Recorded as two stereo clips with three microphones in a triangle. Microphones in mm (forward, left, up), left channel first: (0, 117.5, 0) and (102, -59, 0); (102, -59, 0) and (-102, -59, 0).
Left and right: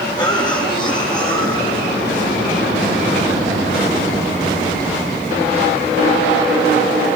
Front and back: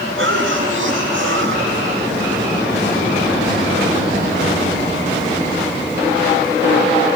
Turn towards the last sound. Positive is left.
turn(degrees=-170)